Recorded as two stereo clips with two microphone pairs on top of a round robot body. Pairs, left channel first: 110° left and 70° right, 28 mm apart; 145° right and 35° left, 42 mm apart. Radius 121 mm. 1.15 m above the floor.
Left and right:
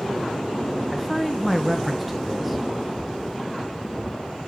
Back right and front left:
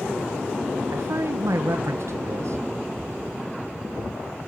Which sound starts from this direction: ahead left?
A man speaking, at 0.9 s.